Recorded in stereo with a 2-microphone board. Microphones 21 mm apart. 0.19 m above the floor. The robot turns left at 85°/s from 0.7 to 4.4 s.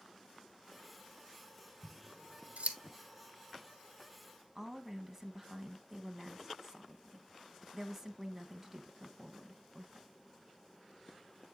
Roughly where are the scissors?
Right.